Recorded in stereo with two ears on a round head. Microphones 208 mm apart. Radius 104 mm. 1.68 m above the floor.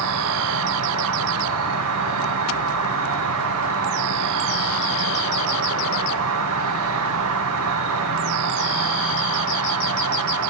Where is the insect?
65° right (ahead or behind), 2.5 m.